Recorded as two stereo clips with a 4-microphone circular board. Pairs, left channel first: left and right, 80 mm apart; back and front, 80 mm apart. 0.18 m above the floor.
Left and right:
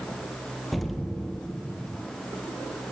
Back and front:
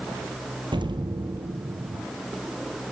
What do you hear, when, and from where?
0.7 s an explosion: straight ahead, 3 m